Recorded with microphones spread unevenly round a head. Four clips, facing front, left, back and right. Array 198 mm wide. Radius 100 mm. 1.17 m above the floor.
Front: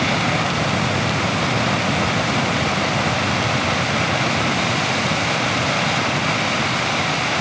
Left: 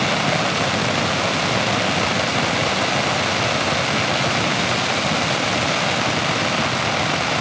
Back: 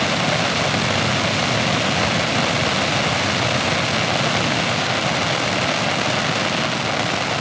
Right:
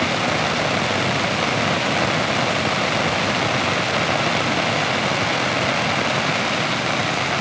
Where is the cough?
No cough in this recording.